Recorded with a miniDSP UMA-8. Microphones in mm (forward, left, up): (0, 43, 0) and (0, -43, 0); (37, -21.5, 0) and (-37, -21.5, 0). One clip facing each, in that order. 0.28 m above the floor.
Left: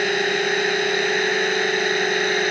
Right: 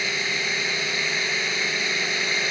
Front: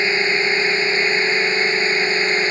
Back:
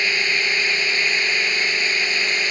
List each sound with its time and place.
0.0 s a drone: 60° left; by 2.5 s 55° left